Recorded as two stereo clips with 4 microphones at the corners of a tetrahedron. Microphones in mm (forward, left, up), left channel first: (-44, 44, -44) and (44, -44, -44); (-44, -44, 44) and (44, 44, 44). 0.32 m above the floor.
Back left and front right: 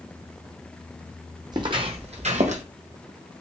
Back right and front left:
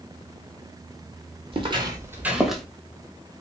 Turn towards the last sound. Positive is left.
turn(degrees=-50)